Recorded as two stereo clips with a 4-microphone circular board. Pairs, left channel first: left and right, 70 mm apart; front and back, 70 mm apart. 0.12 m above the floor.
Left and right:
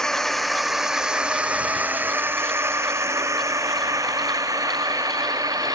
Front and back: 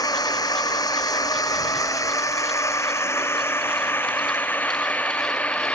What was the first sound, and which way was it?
A drone, 10° left.